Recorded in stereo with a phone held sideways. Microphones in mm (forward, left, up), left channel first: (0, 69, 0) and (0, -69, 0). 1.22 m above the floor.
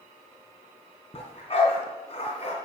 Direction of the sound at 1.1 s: 45° left (ahead or behind).